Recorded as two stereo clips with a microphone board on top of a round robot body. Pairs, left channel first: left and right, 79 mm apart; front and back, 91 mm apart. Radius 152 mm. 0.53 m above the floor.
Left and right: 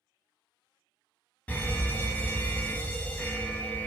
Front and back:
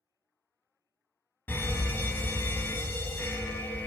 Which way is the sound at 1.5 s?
40° left.